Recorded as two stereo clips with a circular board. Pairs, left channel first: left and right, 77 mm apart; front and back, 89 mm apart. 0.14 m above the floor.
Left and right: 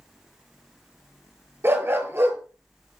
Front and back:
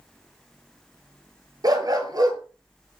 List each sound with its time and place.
1.6 s a dog barking: 145° right, 1.1 m